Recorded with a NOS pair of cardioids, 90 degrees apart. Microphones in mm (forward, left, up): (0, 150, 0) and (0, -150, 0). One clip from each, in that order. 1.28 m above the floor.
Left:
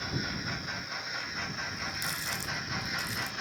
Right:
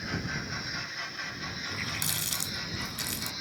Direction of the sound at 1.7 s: 55° right.